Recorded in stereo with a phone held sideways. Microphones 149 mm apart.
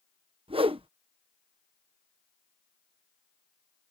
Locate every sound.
0.5 s a whoosh: 35° right (ahead or behind)